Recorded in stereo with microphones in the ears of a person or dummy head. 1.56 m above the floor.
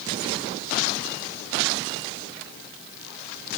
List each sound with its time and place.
Only background noise.